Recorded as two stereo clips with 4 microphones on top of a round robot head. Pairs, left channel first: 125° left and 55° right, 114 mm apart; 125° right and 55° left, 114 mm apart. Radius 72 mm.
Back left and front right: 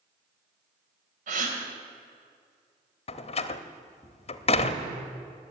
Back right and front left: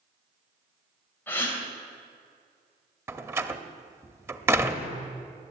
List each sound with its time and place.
1.3 s a gasp: 50° right, 3 m
3.1 s a door slam: 120° left, 1.0 m